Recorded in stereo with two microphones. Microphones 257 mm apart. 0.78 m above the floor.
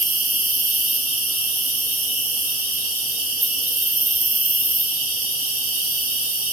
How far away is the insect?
About 1.7 m.